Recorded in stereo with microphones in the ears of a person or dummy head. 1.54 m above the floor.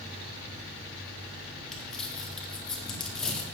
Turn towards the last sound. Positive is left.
turn(degrees=0)  # may be behind; listen again after turning